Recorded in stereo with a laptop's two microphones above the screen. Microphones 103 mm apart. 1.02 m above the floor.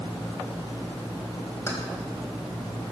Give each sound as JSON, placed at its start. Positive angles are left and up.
{"t": 1.7, "sound": "keys jangling", "side_deg": 25, "distance_m": 3.5}